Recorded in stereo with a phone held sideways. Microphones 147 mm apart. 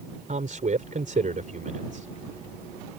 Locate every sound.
0.3 s a man speaking: 60° right (ahead or behind)